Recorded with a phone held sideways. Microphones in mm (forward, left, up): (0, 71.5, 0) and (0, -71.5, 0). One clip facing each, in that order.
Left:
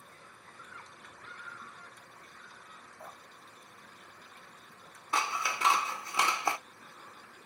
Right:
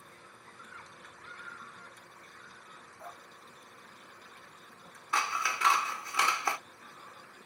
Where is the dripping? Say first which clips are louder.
Right 2 dB; 25° left (ahead or behind), 2 m.